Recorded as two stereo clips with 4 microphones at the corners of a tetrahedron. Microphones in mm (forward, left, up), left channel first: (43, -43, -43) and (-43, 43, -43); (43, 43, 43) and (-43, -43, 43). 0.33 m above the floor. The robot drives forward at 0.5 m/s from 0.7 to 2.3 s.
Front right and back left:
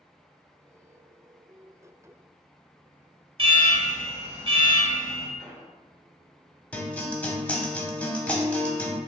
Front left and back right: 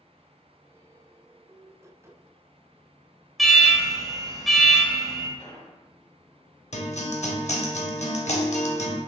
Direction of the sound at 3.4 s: 135° left.